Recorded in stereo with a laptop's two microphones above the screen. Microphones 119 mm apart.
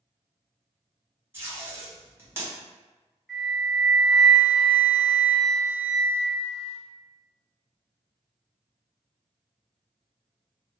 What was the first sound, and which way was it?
Tape being pulled, 20° right (ahead or behind).